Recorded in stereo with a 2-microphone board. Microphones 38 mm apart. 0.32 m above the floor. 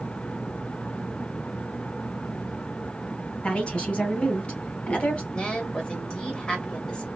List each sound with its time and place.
3.4 s a woman speaking: 30° left (ahead or behind), 1.9 m
5.3 s a woman speaking: 20° left (ahead or behind), 1.4 m